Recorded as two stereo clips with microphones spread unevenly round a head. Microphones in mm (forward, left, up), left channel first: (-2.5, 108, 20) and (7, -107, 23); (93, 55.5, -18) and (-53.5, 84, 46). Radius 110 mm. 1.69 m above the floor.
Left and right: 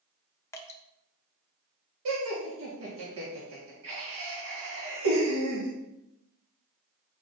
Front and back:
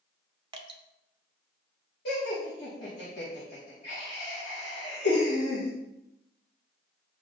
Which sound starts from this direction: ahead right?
Laughter, at 2.0 s.